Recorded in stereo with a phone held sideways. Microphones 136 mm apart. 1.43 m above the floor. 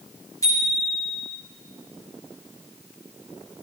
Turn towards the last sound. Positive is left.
turn(degrees=25)  # may be behind; listen again after turning